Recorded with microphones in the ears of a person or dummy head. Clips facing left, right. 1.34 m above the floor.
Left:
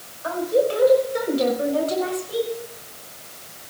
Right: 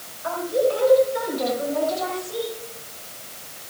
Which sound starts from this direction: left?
A woman speaking, at 0.2 s.